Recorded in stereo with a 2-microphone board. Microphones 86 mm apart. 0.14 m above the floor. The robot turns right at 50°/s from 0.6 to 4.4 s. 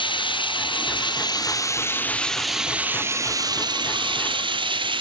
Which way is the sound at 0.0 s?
85° left.